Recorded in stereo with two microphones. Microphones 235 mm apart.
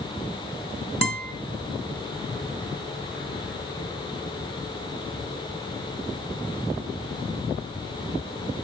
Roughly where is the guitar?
Left.